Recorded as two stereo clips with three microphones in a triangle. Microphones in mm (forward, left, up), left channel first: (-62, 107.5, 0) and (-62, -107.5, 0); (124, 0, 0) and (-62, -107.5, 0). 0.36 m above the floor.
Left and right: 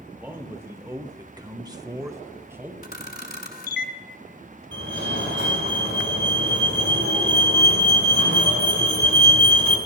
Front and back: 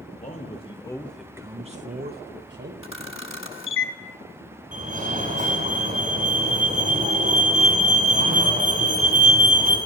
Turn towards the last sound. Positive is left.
turn(degrees=-100)